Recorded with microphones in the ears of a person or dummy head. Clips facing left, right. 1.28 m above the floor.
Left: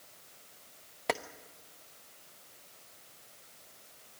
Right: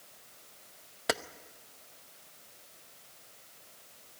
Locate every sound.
1.1 s keys jangling: 10° right (ahead or behind), 0.8 m